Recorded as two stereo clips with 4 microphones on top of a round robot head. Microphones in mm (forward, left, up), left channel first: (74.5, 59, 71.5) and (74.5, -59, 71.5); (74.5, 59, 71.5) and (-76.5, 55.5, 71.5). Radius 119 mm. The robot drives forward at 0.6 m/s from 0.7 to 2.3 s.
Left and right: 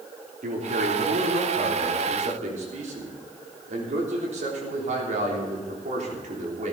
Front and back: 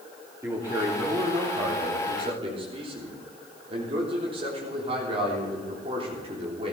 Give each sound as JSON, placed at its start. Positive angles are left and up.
{"t": 0.4, "sound": "a man speaking", "azimuth_deg": -105, "distance_m": 3.0}